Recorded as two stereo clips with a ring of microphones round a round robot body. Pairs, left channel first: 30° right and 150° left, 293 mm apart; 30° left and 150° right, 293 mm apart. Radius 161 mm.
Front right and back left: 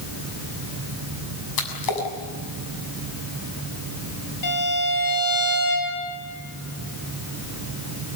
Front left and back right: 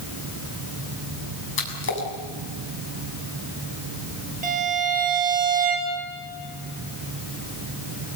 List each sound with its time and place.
1.6 s a splash: 20° right, 7 m
4.4 s a violin: 85° right, 8.5 m